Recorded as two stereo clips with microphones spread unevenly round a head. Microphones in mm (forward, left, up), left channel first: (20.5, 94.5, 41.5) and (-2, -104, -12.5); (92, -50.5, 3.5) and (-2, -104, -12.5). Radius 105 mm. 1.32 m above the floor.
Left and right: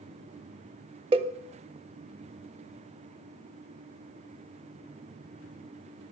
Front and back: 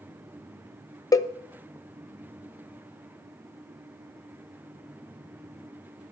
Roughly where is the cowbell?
Ahead right.